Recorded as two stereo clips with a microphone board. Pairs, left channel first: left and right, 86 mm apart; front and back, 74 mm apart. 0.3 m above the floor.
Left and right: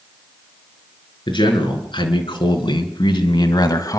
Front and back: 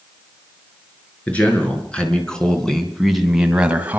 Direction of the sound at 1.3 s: 70° left.